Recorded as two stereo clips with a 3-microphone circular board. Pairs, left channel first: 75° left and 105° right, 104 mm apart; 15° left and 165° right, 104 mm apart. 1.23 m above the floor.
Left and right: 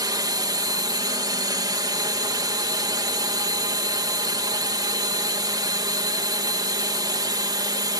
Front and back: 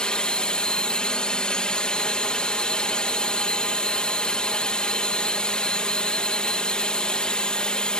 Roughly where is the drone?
Ahead right.